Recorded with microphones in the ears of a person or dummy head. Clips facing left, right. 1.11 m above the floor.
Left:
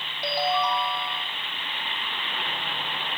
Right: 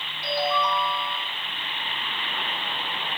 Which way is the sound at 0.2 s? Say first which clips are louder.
Even; 45° left (ahead or behind).